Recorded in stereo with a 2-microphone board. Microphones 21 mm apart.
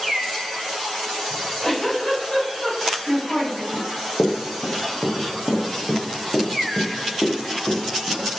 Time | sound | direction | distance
1.3 | a giggle | 80° left | 5 m
3.7 | running footsteps | 70° left (ahead or behind) | 2.5 m